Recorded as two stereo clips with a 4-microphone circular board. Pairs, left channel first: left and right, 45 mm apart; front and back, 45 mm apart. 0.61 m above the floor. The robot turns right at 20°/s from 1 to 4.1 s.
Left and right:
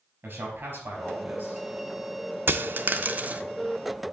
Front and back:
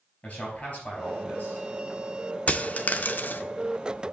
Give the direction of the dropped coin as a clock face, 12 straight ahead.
2 o'clock.